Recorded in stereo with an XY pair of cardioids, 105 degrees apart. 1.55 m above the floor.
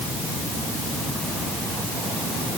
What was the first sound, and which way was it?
Only background noise.